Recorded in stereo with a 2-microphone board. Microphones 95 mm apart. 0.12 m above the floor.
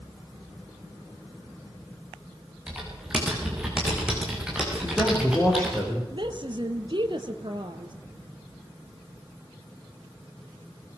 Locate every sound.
2.7 s typing on a keyboard: 10° right (ahead or behind), 7 m
4.8 s a man speaking: 10° left (ahead or behind), 7 m
6.1 s a woman speaking: 55° right (ahead or behind), 2.5 m